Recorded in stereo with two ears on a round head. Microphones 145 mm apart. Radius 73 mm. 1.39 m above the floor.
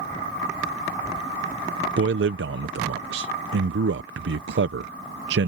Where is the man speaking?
80° right.